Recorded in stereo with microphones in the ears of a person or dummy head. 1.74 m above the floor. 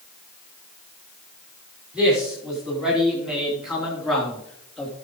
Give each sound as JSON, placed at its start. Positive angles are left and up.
{"t": 1.9, "sound": "a man speaking", "side_deg": -5, "distance_m": 5.5}